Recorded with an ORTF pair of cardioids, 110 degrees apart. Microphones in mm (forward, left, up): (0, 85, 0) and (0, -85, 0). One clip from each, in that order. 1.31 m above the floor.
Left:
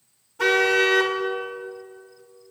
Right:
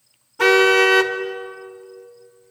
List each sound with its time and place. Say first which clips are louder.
0.4 s a car horn: right 5 dB; 35° right, 2.5 m